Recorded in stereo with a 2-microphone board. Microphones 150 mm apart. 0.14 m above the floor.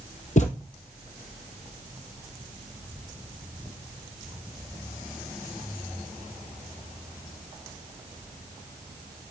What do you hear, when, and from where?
0.4 s a thud: 50° left (ahead or behind), 1.7 m